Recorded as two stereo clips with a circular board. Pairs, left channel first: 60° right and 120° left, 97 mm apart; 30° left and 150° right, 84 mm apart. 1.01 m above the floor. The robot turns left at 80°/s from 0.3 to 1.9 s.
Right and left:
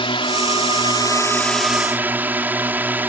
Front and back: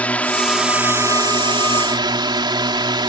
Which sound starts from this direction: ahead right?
A drone, at 0.0 s.